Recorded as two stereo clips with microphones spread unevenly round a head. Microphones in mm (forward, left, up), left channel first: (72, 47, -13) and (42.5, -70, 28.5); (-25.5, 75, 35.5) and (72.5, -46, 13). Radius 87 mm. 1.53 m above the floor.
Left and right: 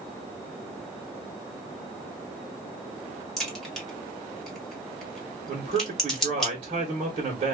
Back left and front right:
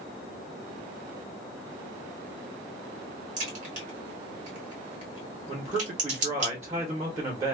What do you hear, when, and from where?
3.4 s a crack: 40° right, 1.5 m
5.5 s a man speaking: 130° right, 0.8 m